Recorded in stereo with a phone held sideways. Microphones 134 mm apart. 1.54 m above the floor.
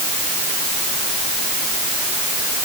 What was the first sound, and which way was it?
Only background noise.